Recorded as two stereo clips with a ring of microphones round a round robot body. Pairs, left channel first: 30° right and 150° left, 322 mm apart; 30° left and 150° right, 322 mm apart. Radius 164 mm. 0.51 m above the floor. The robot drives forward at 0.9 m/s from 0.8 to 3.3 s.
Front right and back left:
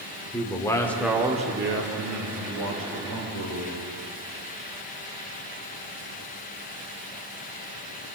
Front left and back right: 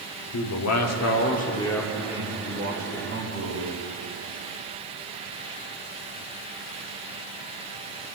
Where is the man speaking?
50° left, 1.1 m; by 3.8 s 155° left, 1.9 m.